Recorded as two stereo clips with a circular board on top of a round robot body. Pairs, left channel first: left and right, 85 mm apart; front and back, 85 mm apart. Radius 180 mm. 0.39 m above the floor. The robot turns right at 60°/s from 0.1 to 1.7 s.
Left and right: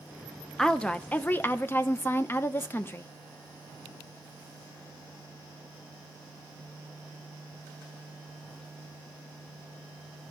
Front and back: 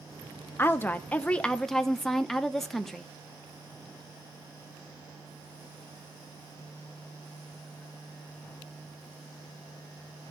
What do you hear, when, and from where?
0.6 s a woman speaking: 15° left, 1.0 m; by 3.1 s 80° left, 1.0 m